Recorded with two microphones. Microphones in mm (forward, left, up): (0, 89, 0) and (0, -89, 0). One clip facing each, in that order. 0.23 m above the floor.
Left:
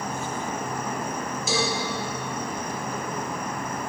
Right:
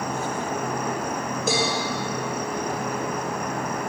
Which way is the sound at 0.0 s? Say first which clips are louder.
Right 3 dB; 70° right (ahead or behind).